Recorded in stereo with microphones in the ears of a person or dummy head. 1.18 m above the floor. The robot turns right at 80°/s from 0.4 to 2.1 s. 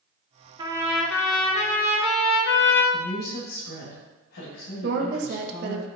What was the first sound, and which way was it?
A trumpet, 30° right.